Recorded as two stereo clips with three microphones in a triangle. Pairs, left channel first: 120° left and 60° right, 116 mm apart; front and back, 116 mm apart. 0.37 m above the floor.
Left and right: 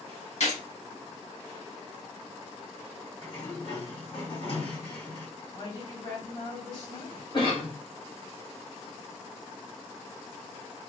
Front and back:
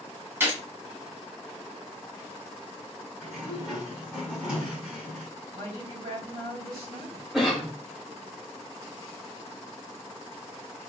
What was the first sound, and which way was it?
A gunshot, 105° left.